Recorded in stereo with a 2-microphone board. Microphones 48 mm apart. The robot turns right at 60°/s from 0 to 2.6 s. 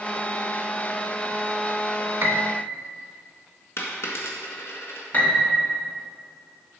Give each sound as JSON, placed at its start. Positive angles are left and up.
{"t": 2.2, "sound": "a piano", "side_deg": -50, "distance_m": 0.6}
{"t": 3.8, "sound": "a dropped coin", "side_deg": 70, "distance_m": 1.5}
{"t": 5.1, "sound": "a piano", "side_deg": 35, "distance_m": 1.4}